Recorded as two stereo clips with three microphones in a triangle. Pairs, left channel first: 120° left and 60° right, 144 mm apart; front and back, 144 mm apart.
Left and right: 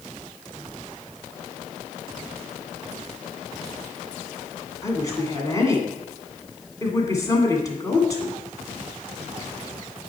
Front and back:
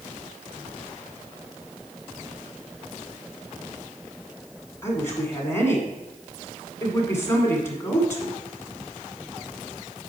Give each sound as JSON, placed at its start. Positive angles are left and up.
{"t": 4.8, "sound": "a woman speaking", "azimuth_deg": 65, "distance_m": 1.8}